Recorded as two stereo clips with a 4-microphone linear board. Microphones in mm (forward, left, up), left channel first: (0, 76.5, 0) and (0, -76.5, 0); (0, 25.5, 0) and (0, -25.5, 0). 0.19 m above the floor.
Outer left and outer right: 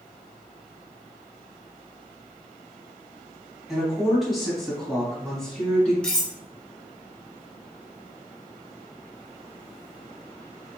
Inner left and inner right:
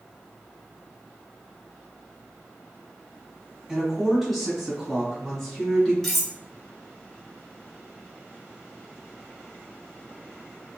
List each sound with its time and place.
3.7 s a woman speaking: 5° right (ahead or behind), 1.5 m; by 5.9 s 5° left (ahead or behind), 1.6 m
6.0 s cutlery clinking: 5° left (ahead or behind), 1.3 m